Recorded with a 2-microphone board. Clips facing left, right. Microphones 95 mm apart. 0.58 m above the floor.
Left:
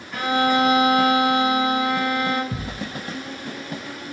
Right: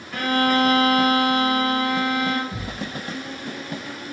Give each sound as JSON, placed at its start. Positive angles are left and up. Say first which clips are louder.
{"t": 0.1, "sound": "a violin", "louder": "even", "side_deg": 5, "distance_m": 2.0}
{"t": 2.5, "sound": "a thud", "louder": "left 1 dB", "side_deg": 40, "distance_m": 0.7}